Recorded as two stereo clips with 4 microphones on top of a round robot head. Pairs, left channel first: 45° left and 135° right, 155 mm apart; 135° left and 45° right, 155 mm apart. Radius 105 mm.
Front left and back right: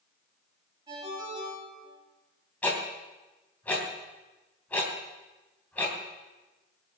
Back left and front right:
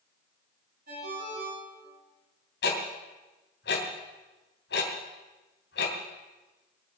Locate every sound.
0.9 s a ringtone: 70° right, 9 m
2.6 s ticking: 125° left, 3 m